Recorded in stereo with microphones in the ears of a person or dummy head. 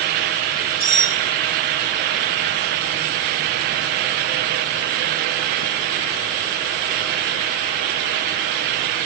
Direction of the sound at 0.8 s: 25° right (ahead or behind).